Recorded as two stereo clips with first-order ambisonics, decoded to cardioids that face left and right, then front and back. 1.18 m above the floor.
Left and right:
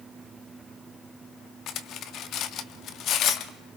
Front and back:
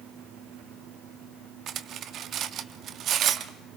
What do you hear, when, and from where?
1.7 s cutlery clinking: 130° left, 0.9 m